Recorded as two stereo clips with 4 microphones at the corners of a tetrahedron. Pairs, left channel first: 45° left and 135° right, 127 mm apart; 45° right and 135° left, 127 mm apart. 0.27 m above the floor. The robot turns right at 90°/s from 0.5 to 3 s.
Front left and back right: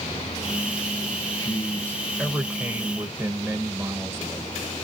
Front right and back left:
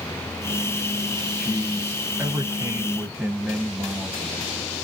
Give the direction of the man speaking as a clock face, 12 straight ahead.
10 o'clock.